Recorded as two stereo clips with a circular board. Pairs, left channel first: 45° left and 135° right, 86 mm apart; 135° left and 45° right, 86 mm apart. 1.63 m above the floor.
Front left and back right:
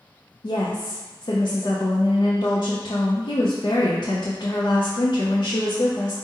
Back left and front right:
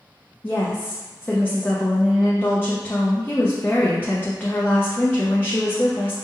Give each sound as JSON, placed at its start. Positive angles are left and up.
{"t": 0.4, "sound": "a woman speaking", "azimuth_deg": 70, "distance_m": 0.5}